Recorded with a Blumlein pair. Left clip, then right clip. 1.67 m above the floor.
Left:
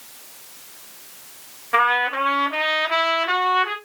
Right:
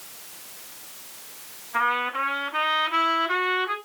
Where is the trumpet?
50° left, 5 m.